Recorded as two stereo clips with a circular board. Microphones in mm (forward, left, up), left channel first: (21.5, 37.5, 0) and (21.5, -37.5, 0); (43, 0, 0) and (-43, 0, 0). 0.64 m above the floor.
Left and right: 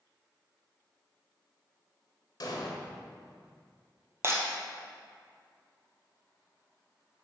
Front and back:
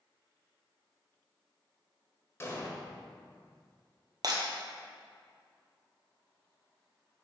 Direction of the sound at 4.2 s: 140° right.